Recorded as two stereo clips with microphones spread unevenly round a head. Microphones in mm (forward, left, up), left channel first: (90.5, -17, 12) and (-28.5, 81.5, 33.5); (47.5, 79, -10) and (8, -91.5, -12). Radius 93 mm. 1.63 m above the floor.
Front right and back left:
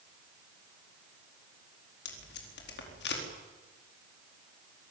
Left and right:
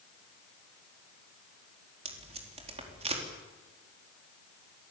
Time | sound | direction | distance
2.0 | tape being pulled | 50° right | 4.5 m